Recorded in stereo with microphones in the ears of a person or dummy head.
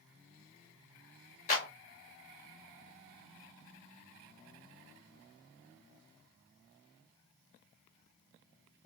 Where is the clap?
50° left (ahead or behind), 2.0 m.